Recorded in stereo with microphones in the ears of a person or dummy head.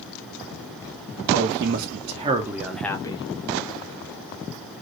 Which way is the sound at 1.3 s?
60° right (ahead or behind).